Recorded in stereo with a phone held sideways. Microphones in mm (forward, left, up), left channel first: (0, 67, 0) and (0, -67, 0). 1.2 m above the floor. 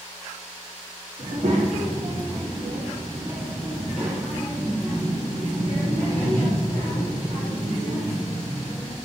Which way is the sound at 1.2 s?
70° right (ahead or behind).